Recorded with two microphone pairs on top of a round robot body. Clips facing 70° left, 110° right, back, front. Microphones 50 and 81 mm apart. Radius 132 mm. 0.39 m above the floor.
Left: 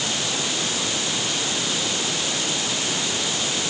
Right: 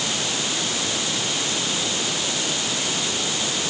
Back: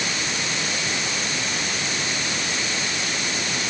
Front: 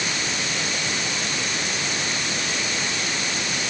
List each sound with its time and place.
Only background noise.